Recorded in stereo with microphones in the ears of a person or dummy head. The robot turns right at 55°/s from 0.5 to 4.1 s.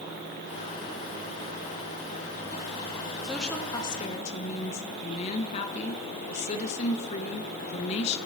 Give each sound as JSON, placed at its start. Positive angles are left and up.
{"t": 3.2, "sound": "a woman speaking", "azimuth_deg": -5, "distance_m": 1.2}